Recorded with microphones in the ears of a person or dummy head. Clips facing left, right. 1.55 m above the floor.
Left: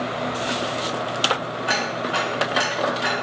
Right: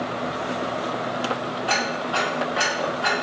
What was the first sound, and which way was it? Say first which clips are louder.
Ticking: left 1 dB; 30° left (ahead or behind).